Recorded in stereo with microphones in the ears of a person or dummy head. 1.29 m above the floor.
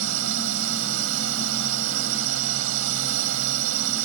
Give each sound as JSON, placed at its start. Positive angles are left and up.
{"t": 0.0, "sound": "a drone", "side_deg": -90}